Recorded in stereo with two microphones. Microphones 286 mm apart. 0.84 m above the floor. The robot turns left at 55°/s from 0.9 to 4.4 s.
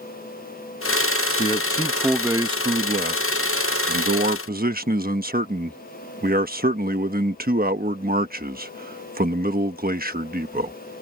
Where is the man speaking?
35° left; by 10.7 s 130° right.